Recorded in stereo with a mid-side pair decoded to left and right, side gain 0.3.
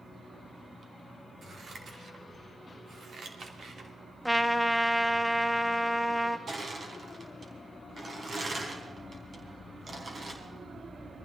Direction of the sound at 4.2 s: Straight ahead.